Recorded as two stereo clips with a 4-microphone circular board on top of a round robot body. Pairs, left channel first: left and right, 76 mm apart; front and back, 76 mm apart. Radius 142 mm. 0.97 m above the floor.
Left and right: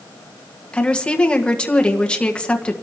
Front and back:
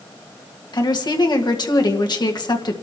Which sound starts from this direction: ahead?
A woman speaking, at 0.7 s.